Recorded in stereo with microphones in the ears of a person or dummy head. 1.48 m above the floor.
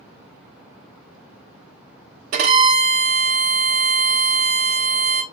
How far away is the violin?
About 0.8 m.